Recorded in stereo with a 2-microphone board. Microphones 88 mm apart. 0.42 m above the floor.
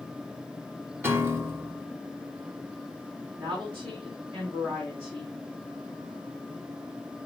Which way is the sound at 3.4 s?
70° right (ahead or behind).